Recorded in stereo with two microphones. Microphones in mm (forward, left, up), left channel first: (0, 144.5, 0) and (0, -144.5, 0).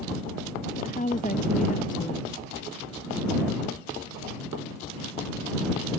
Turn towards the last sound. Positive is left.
turn(degrees=25)  # may be behind; listen again after turning